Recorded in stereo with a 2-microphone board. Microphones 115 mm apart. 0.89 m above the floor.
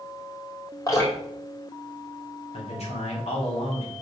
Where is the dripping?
30° left (ahead or behind), 2.5 m.